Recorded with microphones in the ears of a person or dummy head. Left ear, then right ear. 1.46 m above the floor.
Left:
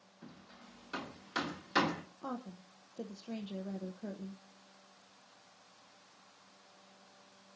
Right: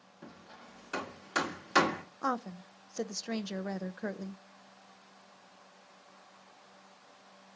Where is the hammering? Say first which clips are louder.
Right 5 dB; 30° right (ahead or behind), 2.0 m.